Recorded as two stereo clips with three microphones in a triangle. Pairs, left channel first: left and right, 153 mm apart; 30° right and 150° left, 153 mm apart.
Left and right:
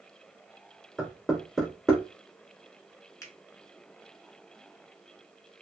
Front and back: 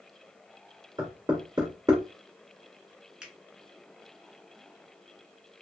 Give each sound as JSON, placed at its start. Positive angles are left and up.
{"t": 1.0, "sound": "knocking", "azimuth_deg": 175, "distance_m": 1.3}
{"t": 3.2, "sound": "a finger snap", "azimuth_deg": 75, "distance_m": 0.8}